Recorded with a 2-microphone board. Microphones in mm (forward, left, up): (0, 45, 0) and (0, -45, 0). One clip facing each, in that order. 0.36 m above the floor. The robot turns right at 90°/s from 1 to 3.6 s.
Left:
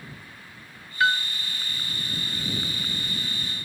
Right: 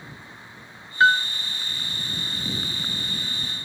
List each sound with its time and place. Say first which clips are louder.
1.0 s a piano: right 5 dB; 30° right (ahead or behind); by 1.3 s 55° right (ahead or behind)